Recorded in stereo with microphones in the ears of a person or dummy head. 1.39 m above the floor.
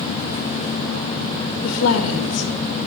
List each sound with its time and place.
1.6 s a woman speaking: 70° left (ahead or behind), 1.8 m